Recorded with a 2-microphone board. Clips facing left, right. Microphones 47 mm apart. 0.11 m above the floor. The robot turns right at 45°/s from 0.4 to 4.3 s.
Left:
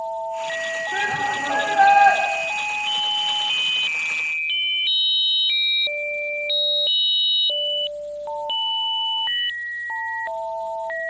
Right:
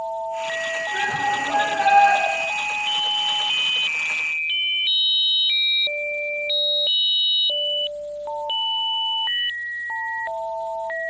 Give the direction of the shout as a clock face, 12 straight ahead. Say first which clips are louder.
Right 1 dB; 10 o'clock.